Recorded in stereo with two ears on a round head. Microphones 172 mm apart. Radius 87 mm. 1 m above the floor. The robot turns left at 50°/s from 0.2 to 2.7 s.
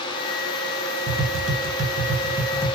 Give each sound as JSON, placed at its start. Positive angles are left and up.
{"t": 1.1, "sound": "tapping", "side_deg": -60, "distance_m": 1.3}